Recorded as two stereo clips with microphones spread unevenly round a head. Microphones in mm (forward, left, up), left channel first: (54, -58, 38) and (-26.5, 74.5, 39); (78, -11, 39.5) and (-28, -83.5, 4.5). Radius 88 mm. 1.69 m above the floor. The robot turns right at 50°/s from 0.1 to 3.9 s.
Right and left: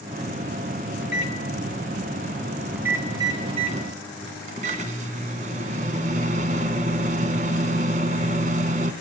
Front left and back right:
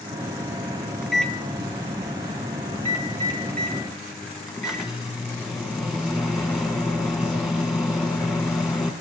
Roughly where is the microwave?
Ahead right.